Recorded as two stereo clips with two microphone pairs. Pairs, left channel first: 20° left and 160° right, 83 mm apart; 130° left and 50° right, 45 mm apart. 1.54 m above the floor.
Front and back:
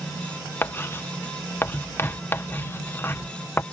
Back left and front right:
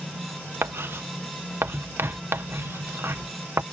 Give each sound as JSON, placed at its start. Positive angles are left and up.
{"t": 0.6, "sound": "writing", "azimuth_deg": -40}